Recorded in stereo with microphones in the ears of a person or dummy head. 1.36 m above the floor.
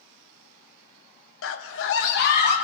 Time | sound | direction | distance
1.4 | a scream | 65° left (ahead or behind) | 1.0 m